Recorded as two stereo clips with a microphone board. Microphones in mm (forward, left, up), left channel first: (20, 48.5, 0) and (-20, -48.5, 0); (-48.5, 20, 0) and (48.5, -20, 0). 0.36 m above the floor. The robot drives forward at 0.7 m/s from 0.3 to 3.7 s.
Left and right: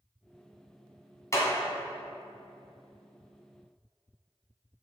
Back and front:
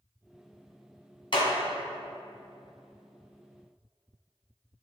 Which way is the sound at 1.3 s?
125° left.